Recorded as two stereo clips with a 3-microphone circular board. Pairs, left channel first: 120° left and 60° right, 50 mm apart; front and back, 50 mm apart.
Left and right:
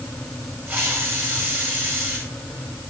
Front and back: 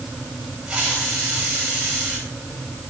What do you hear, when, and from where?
0.7 s a hiss: 105° right, 10 m